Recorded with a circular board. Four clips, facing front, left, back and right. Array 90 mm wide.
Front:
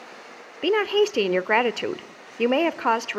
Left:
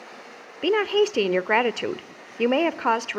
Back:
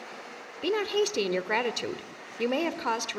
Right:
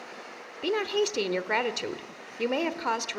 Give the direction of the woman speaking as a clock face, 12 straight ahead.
11 o'clock.